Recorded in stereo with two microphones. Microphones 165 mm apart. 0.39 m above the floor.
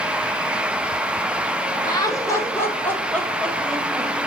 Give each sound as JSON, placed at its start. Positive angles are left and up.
{"t": 1.9, "sound": "laughter", "side_deg": 25, "distance_m": 1.8}